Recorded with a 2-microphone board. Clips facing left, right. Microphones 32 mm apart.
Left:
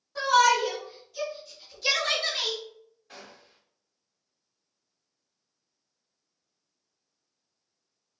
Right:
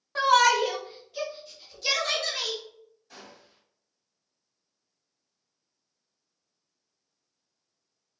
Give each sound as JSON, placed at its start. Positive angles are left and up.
{"t": 0.1, "sound": "a shout", "side_deg": -60, "distance_m": 1.4}
{"t": 3.1, "sound": "a gunshot", "side_deg": 40, "distance_m": 2.0}